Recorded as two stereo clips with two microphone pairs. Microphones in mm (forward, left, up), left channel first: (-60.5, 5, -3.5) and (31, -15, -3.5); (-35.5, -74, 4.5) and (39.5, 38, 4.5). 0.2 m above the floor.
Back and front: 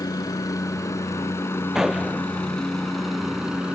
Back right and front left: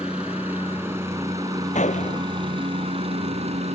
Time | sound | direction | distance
0.0 | a helicopter | 135° left | ?
1.8 | a gunshot | 95° right | ?